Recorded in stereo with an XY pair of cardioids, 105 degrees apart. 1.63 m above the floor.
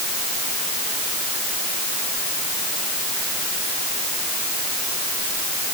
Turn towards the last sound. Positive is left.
No sound to turn to.